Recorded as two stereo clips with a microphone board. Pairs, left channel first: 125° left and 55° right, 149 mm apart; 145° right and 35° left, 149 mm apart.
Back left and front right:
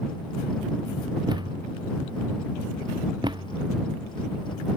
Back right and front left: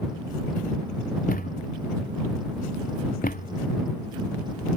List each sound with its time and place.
1.3 s a thud: 120° right